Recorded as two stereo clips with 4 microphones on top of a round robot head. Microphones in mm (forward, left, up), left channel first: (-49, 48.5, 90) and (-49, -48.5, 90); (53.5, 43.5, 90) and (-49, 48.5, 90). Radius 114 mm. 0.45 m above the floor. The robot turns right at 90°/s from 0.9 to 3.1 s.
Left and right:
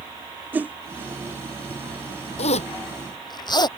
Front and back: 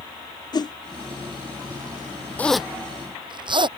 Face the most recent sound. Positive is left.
turn(degrees=135)